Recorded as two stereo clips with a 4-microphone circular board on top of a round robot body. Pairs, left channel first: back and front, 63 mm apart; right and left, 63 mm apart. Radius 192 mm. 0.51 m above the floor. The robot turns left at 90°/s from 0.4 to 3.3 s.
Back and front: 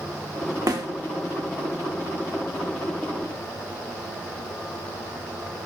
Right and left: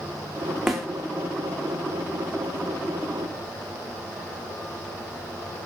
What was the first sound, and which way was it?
A snare drum, 5° left.